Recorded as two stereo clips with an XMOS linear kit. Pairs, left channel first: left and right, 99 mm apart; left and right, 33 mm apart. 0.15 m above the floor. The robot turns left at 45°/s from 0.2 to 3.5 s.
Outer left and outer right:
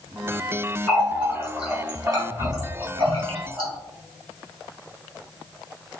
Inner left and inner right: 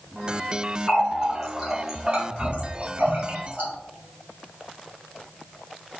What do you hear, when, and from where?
0.9 s a running tap: 15° left (ahead or behind), 2.5 m; by 3.7 s 65° right (ahead or behind), 2.5 m